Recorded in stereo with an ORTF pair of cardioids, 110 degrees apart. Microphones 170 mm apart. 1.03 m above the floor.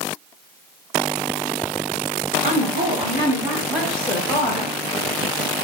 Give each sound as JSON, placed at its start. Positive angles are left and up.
{"t": 2.4, "sound": "a woman speaking", "azimuth_deg": -45, "distance_m": 1.5}